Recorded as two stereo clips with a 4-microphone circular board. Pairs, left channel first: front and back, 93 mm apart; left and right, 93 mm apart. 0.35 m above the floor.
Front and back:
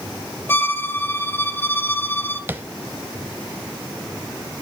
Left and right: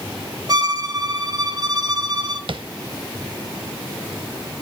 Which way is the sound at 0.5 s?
60° right.